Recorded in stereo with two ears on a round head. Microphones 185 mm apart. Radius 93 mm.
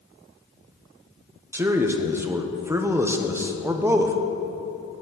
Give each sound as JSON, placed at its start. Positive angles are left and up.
{"t": 1.5, "sound": "a man speaking", "side_deg": -10, "distance_m": 0.8}